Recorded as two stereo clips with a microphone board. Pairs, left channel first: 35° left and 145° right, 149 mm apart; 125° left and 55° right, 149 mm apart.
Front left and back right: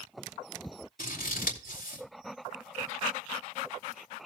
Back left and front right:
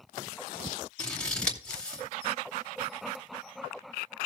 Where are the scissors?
40° left, 2.5 m.